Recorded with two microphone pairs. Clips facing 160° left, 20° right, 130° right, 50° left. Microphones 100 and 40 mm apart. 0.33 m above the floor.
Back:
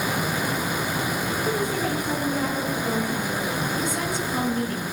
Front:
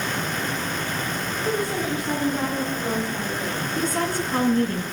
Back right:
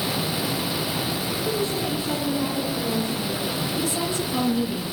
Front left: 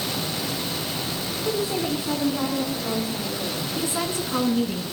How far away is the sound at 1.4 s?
About 4 m.